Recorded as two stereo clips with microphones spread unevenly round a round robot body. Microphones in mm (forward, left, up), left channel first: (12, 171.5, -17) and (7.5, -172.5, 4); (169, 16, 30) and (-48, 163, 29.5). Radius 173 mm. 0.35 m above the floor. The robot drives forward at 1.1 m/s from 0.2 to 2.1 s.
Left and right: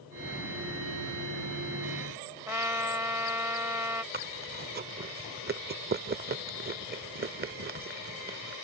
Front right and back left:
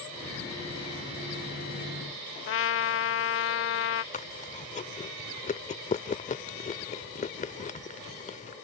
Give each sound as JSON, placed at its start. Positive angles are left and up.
{"t": 2.5, "sound": "a trumpet", "azimuth_deg": -5}
{"t": 4.1, "sound": "chewing", "azimuth_deg": -55}